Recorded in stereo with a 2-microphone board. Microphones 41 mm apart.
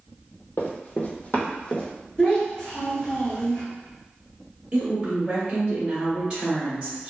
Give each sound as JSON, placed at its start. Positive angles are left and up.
{"t": 0.6, "sound": "running footsteps", "side_deg": 60, "distance_m": 0.6}
{"t": 2.2, "sound": "a child speaking", "side_deg": 25, "distance_m": 1.1}
{"t": 4.7, "sound": "a woman speaking", "side_deg": -25, "distance_m": 0.9}